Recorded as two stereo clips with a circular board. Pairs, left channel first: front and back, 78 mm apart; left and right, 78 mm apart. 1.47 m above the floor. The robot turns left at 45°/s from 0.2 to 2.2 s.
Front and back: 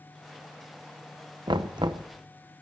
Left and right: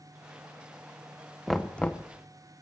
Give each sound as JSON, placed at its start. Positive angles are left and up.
{"t": 1.5, "sound": "knocking", "azimuth_deg": 180, "distance_m": 0.8}